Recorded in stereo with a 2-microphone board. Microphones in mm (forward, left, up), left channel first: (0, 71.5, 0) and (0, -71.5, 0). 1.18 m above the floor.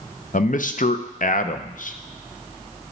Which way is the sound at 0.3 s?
65° left (ahead or behind).